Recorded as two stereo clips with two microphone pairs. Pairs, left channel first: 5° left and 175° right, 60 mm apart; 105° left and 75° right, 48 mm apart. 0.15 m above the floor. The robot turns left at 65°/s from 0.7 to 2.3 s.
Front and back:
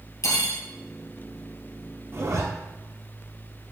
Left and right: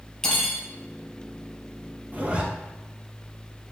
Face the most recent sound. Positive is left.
turn(degrees=-140)